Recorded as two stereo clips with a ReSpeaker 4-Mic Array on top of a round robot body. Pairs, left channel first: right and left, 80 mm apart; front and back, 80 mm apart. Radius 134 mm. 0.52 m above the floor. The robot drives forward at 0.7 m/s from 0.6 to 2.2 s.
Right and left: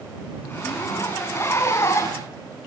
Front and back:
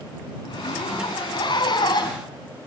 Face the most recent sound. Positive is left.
turn(degrees=-35)